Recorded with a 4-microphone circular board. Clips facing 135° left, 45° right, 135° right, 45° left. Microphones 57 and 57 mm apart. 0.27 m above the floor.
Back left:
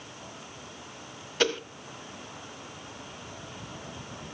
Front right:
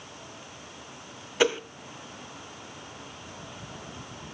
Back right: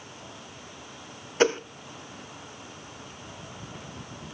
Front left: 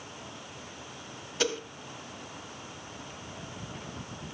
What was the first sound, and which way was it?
A whoosh, 115° right.